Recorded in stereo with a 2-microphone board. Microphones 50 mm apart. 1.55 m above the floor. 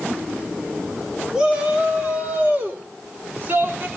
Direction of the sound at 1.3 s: 20° right (ahead or behind).